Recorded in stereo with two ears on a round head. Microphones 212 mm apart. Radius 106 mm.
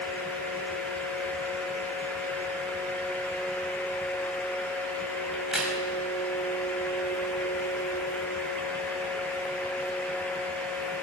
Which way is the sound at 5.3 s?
5° right (ahead or behind).